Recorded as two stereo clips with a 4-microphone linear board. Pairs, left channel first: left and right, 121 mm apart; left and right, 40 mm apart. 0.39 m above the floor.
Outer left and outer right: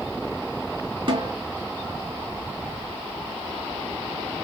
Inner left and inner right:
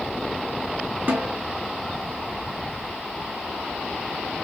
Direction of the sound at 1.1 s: 45° right (ahead or behind).